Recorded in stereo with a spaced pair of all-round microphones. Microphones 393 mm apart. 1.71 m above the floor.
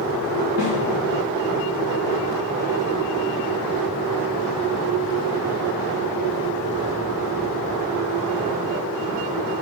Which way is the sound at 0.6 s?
65° right (ahead or behind).